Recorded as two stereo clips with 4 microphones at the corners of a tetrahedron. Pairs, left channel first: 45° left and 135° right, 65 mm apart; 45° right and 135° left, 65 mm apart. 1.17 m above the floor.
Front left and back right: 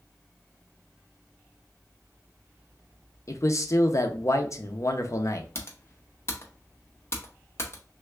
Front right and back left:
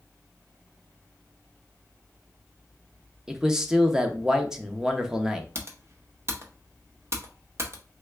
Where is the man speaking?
55° left, 0.6 m.